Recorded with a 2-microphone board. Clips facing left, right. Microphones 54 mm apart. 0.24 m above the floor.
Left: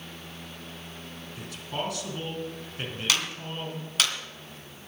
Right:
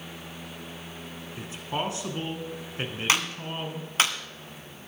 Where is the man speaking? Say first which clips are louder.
Right 2 dB; 25° right (ahead or behind), 2 m.